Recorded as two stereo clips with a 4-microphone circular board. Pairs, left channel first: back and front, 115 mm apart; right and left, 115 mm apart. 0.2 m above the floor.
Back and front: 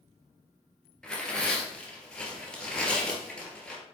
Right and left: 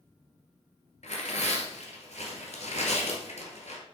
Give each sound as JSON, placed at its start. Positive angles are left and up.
{"t": 1.0, "sound": "tearing paper", "azimuth_deg": -100, "distance_m": 1.9}